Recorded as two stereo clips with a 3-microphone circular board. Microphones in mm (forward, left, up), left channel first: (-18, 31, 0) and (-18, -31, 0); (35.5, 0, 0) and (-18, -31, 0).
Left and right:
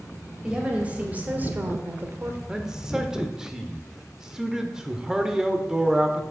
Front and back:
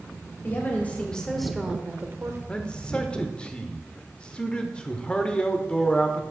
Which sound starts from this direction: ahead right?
A man speaking, at 2.5 s.